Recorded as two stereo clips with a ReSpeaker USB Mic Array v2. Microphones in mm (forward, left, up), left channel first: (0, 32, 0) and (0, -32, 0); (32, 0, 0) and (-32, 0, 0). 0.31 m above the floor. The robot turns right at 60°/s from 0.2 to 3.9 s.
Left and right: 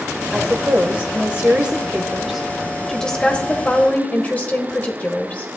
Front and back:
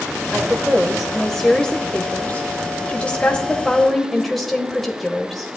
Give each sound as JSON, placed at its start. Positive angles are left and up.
{"t": 0.3, "sound": "a woman speaking", "azimuth_deg": -130, "distance_m": 1.0}